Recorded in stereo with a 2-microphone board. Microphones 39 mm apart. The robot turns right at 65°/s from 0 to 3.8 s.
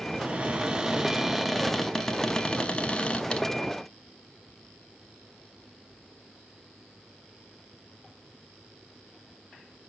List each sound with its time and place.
0.2 s a cupboard door: 30° right (ahead or behind), 0.7 m; by 3.5 s 25° left (ahead or behind), 0.7 m